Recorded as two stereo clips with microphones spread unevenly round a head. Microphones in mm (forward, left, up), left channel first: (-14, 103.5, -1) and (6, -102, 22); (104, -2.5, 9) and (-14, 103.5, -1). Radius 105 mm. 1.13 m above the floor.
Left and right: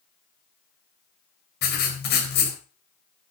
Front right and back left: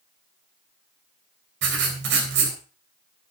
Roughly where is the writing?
Behind left.